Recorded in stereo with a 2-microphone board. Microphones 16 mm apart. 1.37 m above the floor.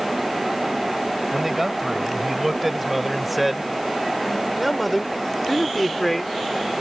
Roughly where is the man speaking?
Centre.